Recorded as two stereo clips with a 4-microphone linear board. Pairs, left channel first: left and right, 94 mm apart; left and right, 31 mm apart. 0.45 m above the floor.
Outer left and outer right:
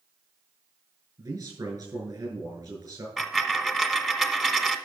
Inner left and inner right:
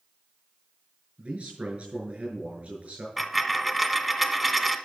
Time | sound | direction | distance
1.2 | a man speaking | 45° right (ahead or behind) | 6 m
3.2 | a dropped coin | 5° right (ahead or behind) | 0.9 m